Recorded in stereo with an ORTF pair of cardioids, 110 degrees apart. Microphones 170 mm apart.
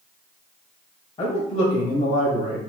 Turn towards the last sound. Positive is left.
turn(degrees=70)